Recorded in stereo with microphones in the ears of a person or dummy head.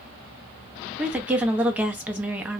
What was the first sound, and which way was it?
A woman speaking, 10° right (ahead or behind).